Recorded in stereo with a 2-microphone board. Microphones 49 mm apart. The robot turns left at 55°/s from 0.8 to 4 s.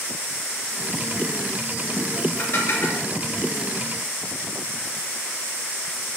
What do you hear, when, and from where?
2.4 s dishes clattering: 40° left (ahead or behind), 2 m; by 3.0 s 65° left (ahead or behind), 2 m